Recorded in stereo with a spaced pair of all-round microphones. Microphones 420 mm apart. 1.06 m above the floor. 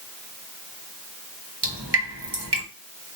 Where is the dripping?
70° right (ahead or behind), 1.2 m.